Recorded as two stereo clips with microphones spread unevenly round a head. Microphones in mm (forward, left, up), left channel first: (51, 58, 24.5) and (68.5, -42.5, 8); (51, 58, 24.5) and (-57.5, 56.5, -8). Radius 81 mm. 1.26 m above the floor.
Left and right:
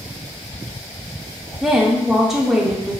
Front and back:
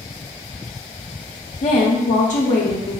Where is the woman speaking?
Straight ahead, 0.5 m.